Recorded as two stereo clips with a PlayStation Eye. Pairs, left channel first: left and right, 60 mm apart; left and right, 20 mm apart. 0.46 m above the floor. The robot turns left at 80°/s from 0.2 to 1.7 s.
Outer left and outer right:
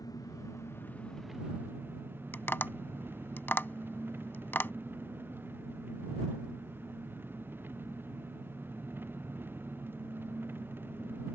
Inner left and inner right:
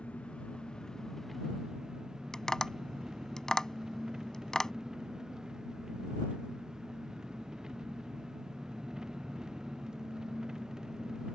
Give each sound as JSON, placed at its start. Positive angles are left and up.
{"t": 0.0, "sound": "an engine running", "azimuth_deg": 90}
{"t": 2.3, "sound": "tapping", "side_deg": 35}